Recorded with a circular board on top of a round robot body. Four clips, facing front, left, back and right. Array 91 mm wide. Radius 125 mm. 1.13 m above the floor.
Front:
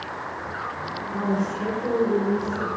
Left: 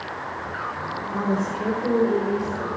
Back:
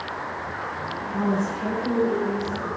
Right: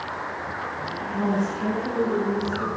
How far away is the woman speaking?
About 4 m.